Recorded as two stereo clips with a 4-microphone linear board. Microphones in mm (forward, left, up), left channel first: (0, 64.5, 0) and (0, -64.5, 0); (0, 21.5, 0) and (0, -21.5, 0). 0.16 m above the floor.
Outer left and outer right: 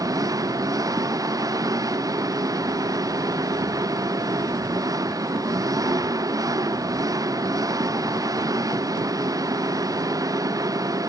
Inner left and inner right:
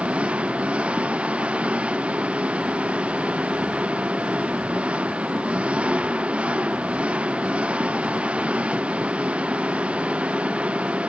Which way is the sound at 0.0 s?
25° right (ahead or behind).